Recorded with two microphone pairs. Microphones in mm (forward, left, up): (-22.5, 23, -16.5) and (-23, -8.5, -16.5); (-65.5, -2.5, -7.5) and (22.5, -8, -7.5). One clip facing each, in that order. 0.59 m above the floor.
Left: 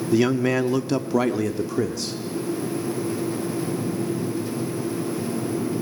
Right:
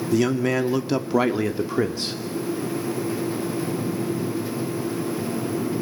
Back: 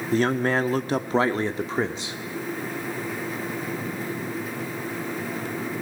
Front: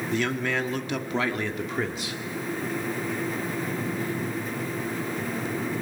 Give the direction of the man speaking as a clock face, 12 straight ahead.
7 o'clock.